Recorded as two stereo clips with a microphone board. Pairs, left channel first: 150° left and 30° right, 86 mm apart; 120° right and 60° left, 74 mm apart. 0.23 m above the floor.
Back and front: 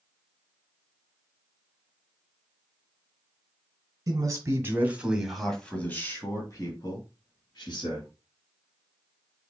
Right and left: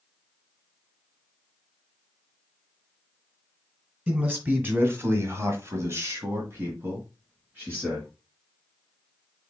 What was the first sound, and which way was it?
A man speaking, 5° right.